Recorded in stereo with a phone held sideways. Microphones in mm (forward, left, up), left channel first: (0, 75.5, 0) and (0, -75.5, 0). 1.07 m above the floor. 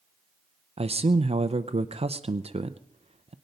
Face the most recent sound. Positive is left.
turn(degrees=-45)  # may be behind; listen again after turning